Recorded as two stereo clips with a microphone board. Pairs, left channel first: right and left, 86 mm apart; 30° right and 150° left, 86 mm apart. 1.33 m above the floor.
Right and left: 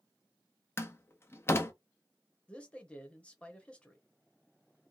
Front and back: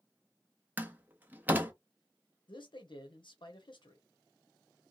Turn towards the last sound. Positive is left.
turn(degrees=-15)